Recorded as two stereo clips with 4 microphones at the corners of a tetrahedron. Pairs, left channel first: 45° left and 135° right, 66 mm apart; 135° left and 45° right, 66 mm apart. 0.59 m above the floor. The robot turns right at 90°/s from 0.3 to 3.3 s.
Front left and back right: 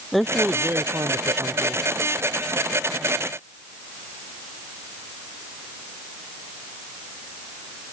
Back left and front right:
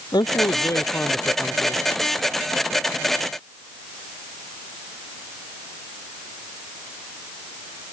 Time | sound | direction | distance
0.1 | a man speaking | 130° left | ?